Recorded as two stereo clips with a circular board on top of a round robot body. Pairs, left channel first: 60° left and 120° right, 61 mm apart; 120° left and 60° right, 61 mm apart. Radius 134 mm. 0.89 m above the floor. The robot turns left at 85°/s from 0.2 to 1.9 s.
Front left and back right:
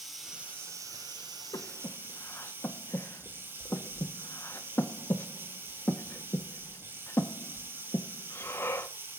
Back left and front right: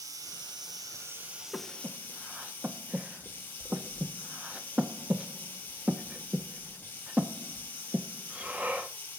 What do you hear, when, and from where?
0.0 s running water: 30° right, 3 m; by 9.2 s 175° right, 3 m
1.5 s breathing: 40° left, 1.6 m; by 8.9 s 10° left, 1.6 m